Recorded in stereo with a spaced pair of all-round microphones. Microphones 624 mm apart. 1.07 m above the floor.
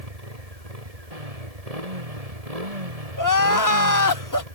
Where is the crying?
30° left (ahead or behind).